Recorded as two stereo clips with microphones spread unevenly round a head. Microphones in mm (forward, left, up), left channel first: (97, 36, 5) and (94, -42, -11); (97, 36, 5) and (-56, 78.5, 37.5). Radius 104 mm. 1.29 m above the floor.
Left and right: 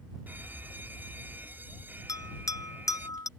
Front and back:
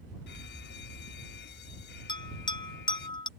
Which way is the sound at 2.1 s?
45° left.